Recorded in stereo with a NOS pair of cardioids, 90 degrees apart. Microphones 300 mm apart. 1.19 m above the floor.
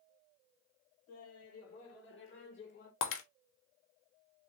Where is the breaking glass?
50° left, 1.1 m.